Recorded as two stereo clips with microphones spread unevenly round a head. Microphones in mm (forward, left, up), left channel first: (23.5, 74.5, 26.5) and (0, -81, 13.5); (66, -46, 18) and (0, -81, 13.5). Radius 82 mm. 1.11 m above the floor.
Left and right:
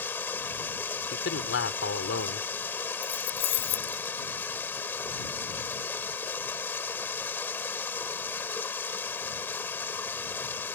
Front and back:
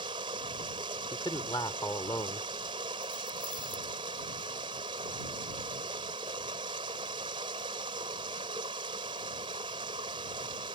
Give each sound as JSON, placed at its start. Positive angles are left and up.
{"t": 0.0, "sound": "running water", "azimuth_deg": 160}
{"t": 1.1, "sound": "a man speaking", "azimuth_deg": 90}
{"t": 3.0, "sound": "keys jangling", "azimuth_deg": 110}